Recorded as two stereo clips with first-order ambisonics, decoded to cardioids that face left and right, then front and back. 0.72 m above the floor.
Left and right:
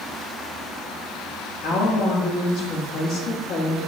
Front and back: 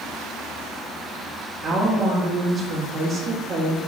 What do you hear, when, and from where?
1.6 s a woman speaking: 105° left, 1.1 m